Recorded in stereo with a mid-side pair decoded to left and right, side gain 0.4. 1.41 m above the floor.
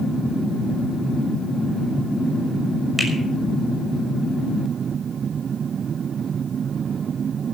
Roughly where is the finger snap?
Ahead.